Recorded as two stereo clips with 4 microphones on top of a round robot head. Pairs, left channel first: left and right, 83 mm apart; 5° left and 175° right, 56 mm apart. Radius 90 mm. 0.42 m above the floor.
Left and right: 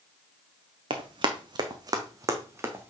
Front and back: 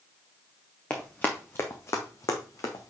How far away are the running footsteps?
About 1.4 m.